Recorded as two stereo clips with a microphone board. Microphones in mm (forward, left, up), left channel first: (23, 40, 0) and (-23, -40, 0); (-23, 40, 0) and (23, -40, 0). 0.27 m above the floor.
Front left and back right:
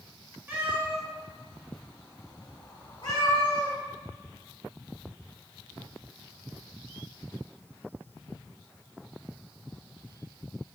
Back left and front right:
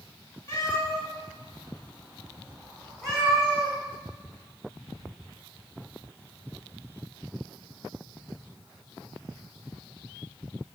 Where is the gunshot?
I don't hear a gunshot.